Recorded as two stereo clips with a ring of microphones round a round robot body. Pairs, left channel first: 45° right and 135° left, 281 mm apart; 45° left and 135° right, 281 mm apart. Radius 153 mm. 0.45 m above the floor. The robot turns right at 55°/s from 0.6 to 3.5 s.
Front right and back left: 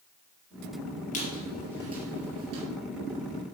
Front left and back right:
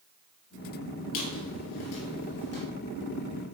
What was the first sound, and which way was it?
A squeak, 20° left.